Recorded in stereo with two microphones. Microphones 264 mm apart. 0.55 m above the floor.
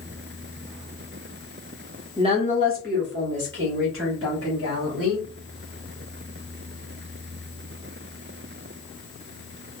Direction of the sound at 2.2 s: 20° right (ahead or behind).